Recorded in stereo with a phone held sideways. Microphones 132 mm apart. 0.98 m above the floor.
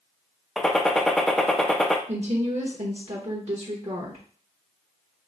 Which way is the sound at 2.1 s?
50° right (ahead or behind).